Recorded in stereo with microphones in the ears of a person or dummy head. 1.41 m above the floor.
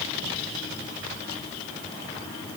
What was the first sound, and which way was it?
Only background noise.